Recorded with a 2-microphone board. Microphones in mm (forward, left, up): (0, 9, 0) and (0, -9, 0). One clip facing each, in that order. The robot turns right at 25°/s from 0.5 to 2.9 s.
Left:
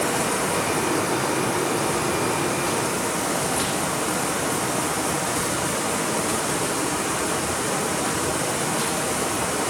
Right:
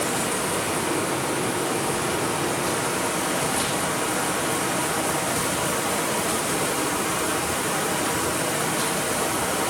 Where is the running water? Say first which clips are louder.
Left 2 dB; 100° left, 5 m; by 9.7 s 160° left, 5 m.